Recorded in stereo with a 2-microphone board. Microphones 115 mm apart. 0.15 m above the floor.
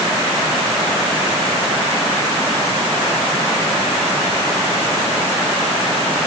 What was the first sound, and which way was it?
Only background noise.